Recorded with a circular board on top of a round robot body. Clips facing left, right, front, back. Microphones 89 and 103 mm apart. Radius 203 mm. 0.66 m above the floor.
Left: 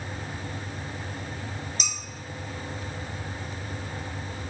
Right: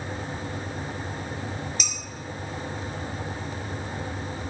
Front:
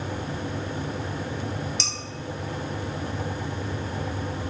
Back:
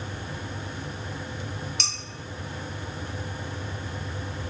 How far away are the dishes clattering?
About 1.1 m.